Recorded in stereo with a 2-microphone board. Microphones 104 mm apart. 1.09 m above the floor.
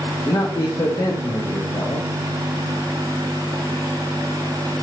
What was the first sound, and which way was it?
A man speaking, 45° left (ahead or behind).